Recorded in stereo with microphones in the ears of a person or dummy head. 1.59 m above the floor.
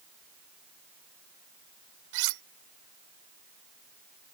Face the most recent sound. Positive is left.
turn(degrees=-75)  # may be behind; listen again after turning